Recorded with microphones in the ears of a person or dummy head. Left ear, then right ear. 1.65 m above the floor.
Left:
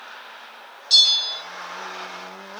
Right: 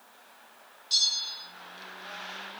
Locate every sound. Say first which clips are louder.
0.9 s a bell: left 11 dB; 35° left (ahead or behind), 0.7 m